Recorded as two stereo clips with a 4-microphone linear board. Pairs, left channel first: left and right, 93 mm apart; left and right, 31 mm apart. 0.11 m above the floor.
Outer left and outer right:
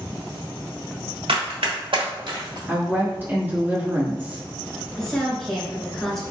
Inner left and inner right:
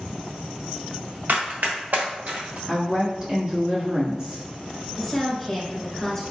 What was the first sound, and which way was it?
Running footsteps, 85° right.